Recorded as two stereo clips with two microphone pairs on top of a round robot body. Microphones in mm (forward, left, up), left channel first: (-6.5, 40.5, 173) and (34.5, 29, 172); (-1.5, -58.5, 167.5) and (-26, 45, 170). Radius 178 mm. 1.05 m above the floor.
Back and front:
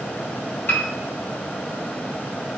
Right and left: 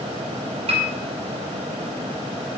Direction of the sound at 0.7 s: 130° left.